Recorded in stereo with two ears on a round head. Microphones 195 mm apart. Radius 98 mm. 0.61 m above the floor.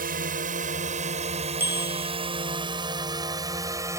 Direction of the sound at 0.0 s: 40° right (ahead or behind).